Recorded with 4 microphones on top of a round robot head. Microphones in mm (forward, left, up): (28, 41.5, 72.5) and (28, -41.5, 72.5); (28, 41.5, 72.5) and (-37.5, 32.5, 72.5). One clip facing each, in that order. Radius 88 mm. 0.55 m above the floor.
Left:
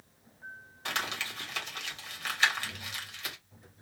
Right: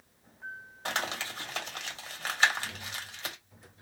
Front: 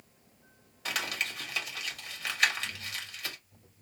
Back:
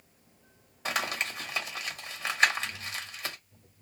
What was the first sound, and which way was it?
Crumpling, 125° right.